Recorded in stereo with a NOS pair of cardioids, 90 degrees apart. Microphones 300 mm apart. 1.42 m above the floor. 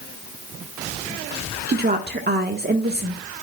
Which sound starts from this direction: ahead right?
A woman speaking, at 1.7 s.